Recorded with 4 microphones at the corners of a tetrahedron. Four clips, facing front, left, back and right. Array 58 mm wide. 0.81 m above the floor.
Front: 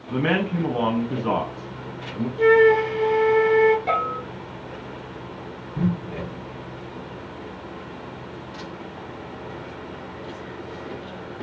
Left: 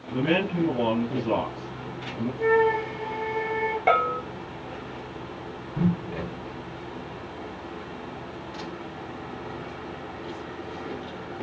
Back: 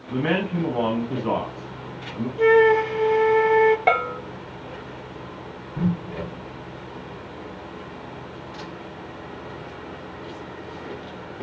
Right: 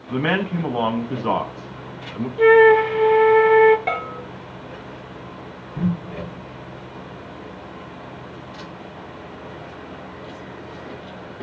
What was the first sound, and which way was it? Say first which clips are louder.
A man speaking: right 3 dB, front 1 dB; 85° right.